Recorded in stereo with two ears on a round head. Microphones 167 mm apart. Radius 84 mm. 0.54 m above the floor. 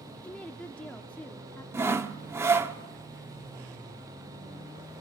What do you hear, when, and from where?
0.2 s a woman speaking: 10° left (ahead or behind), 1.0 m
1.7 s sawing: 15° right (ahead or behind), 0.9 m